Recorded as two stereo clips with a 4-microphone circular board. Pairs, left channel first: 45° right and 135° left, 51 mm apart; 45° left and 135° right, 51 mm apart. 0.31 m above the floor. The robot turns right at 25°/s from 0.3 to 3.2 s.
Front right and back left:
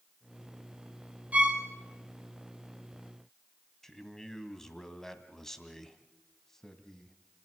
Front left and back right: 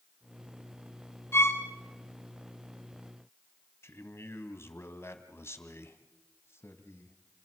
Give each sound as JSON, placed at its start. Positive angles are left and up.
{"t": 1.3, "sound": "a violin", "azimuth_deg": 75, "distance_m": 3.5}
{"t": 3.8, "sound": "a man speaking", "azimuth_deg": 35, "distance_m": 1.9}